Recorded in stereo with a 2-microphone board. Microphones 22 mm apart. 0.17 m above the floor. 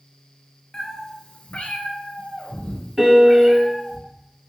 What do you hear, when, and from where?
0.7 s a cat meowing: 25° left (ahead or behind), 0.6 m; by 4.0 s 45° left (ahead or behind), 1.7 m
3.0 s a piano: 20° right (ahead or behind), 1.0 m